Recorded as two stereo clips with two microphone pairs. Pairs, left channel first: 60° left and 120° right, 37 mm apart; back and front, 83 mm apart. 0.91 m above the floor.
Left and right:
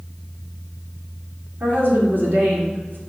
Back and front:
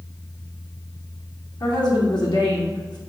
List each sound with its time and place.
1.6 s a woman speaking: 150° right, 2.5 m